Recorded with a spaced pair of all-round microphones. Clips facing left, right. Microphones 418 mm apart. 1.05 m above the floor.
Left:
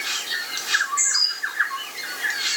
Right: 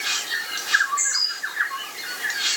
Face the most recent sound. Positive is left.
No sound to turn to.